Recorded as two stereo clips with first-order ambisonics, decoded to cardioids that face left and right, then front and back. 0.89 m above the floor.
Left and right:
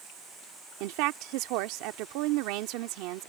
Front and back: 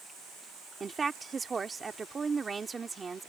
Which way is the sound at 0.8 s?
105° right.